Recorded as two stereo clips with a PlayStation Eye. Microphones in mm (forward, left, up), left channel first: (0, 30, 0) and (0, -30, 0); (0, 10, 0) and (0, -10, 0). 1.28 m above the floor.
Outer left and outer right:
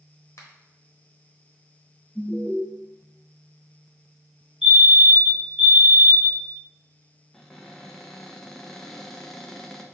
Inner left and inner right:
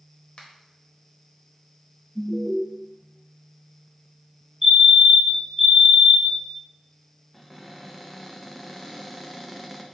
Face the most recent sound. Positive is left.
turn(degrees=5)  # may be behind; listen again after turning